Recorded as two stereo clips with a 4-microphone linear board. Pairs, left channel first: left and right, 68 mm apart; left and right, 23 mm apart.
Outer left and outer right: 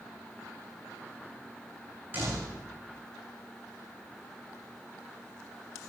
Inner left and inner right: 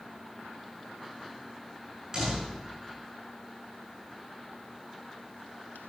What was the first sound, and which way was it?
A door slam, 30° right (ahead or behind).